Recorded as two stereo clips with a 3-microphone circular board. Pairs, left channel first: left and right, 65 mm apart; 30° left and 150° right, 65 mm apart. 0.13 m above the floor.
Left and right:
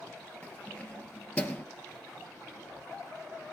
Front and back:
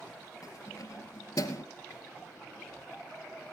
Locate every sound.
0.4 s keys jangling: 25° left, 2.0 m